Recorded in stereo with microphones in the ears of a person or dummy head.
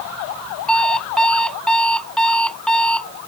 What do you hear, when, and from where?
0.7 s an alarm clock: 5° left (ahead or behind)